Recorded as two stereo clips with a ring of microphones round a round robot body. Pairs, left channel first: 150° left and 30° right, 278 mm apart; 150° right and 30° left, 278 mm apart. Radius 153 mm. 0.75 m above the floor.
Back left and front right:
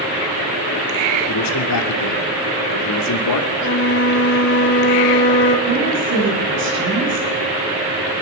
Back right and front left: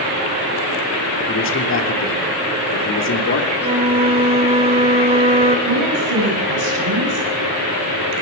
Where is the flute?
100° left, 1.4 m.